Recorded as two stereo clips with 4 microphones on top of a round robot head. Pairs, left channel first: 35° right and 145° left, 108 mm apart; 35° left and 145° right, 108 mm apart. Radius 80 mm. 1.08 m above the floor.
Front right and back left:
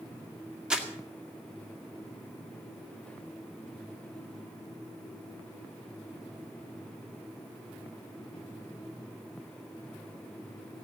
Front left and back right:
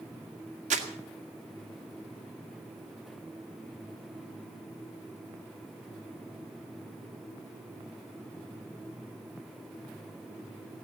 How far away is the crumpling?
About 2 m.